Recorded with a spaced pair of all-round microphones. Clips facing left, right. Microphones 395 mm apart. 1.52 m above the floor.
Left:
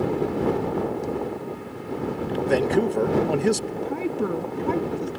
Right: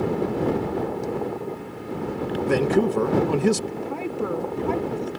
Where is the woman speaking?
25° left (ahead or behind).